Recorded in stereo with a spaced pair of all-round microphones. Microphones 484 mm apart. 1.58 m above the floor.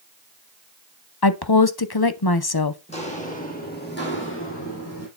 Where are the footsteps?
15° left (ahead or behind), 3 m; by 5.1 s 30° left (ahead or behind), 2.5 m.